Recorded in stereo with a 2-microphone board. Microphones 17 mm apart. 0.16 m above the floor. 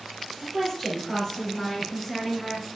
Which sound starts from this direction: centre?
A woman speaking, at 0.4 s.